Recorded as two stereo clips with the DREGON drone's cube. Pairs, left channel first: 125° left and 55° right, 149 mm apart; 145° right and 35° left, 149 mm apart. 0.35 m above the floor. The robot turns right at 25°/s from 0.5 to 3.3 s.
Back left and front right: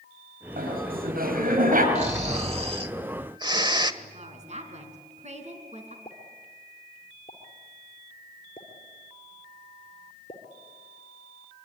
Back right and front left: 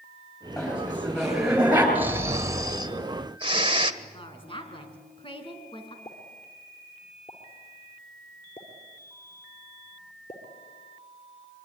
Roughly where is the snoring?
Ahead right.